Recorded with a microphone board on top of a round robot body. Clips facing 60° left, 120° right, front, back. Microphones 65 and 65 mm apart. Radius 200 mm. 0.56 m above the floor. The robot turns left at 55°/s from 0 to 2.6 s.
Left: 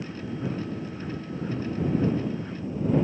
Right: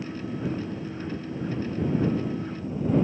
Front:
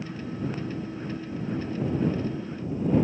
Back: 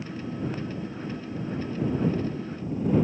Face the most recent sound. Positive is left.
No sound to turn to.